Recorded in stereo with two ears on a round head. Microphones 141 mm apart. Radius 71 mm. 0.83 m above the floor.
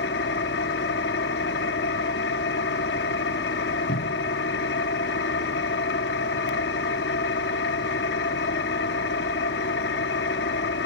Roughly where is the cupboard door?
Left.